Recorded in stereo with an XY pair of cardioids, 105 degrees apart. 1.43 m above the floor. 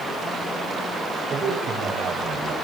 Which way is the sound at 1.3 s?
55° right.